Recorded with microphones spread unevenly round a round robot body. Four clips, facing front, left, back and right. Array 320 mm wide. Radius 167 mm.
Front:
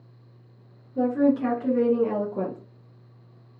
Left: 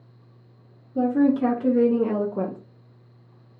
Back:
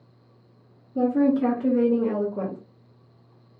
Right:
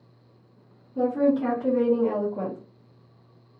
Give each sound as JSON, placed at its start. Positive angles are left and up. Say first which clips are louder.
{"t": 0.9, "sound": "a woman speaking", "louder": "left 2 dB, back 1 dB", "azimuth_deg": 135, "distance_m": 1.4}